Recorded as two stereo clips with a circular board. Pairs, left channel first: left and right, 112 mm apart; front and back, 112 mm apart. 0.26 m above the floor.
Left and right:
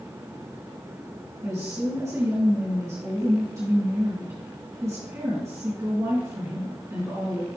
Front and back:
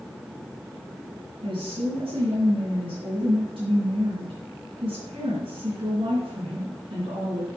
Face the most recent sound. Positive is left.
turn(degrees=-155)